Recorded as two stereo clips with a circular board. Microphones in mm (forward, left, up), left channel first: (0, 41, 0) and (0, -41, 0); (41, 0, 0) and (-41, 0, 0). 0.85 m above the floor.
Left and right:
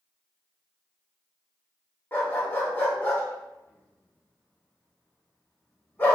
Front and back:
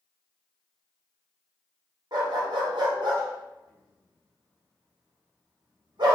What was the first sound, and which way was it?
A dog barking, 155° left.